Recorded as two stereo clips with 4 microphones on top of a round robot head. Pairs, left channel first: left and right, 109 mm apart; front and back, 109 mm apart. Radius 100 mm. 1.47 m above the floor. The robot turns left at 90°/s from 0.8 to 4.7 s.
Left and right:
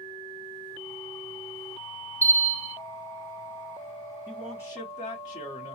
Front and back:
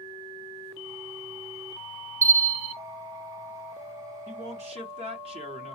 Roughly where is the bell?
Behind.